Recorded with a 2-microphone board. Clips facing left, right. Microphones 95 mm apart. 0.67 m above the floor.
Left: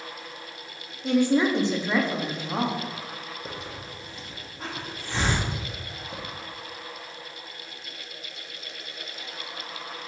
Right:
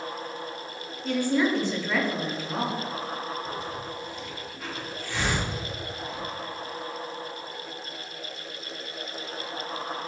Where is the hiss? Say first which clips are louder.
Right 4 dB; 35° left (ahead or behind), 0.8 m.